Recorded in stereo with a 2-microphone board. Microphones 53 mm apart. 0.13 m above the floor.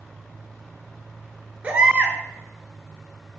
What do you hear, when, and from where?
1.6 s a baby crying: 25° right (ahead or behind), 0.6 m